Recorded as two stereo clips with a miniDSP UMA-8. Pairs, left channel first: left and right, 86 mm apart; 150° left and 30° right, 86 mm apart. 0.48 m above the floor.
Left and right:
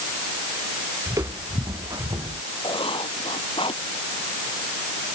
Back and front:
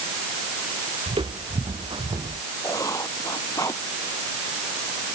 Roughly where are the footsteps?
Ahead right.